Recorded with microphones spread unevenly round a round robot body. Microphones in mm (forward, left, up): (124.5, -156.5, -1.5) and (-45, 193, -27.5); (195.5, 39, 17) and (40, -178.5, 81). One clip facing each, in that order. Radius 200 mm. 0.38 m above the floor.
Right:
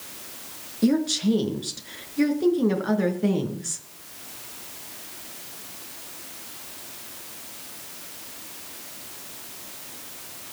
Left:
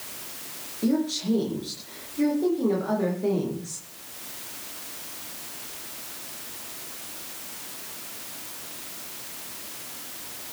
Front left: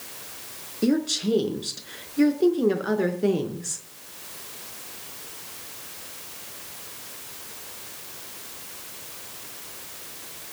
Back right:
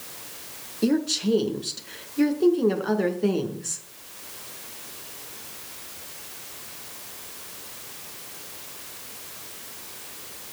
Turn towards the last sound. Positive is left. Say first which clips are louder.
# right 3 dB, even
turn(degrees=-30)